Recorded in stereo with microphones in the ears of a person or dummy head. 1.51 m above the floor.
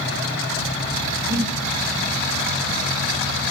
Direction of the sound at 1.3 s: 70° right (ahead or behind).